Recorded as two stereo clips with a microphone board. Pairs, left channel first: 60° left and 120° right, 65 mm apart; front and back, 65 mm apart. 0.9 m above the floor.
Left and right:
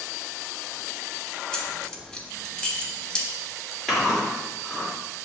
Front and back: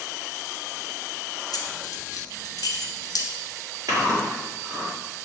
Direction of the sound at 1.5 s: 20° right.